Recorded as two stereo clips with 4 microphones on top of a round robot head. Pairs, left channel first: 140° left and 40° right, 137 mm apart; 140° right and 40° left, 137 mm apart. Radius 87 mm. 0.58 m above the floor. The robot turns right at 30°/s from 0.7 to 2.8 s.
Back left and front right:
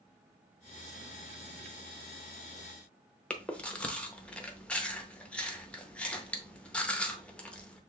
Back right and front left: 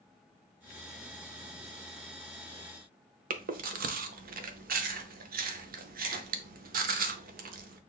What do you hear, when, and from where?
3.3 s chewing: 55° left, 0.6 m